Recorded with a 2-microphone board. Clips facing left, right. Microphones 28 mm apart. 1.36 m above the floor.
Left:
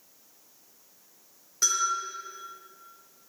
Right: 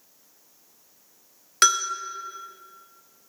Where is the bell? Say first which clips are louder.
Right 6 dB; 80° right, 0.8 m.